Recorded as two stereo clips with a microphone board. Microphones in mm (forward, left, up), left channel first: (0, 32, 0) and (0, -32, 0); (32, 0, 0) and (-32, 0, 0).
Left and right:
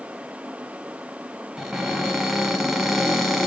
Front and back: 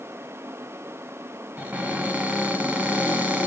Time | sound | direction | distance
1.6 | a cupboard door | straight behind | 1.2 m